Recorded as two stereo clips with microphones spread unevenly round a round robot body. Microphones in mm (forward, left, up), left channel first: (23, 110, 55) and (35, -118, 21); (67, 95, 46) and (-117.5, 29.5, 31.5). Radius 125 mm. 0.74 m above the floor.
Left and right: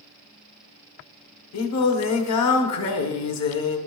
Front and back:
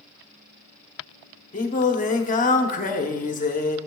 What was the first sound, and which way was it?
Singing, 75° left.